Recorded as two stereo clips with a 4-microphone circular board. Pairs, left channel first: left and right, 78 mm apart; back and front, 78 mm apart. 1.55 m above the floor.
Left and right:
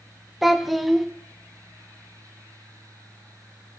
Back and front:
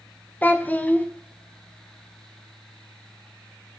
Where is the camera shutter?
No camera shutter in this recording.